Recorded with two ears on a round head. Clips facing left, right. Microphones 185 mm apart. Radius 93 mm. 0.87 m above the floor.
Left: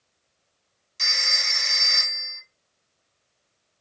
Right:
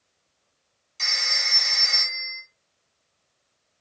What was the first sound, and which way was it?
A phone ringing, 15° left (ahead or behind).